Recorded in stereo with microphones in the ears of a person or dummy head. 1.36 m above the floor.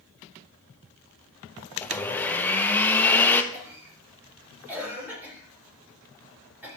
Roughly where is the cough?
Centre.